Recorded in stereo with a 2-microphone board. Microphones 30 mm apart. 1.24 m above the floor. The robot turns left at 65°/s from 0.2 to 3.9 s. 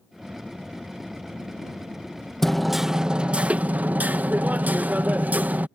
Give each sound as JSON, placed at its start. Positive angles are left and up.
{"t": 2.4, "sound": "hammering", "azimuth_deg": 10}